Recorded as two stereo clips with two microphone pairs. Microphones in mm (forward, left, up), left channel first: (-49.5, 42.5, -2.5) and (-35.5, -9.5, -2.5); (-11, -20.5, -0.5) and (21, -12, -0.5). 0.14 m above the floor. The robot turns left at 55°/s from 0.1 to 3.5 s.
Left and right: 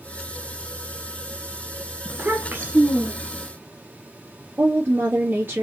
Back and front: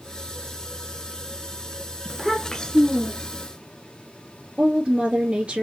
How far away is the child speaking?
About 1.3 m.